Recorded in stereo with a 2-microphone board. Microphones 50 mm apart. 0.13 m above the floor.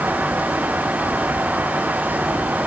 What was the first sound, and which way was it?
Only background noise.